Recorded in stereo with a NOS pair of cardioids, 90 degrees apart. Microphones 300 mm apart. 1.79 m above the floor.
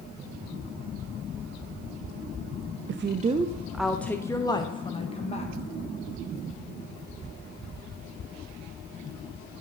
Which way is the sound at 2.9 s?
45° right.